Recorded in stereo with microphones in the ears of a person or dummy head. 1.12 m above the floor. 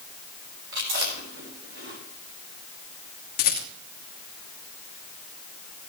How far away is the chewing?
About 4.5 m.